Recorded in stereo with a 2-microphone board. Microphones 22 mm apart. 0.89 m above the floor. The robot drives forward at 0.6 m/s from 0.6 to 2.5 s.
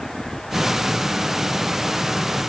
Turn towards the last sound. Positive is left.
No sound to turn to.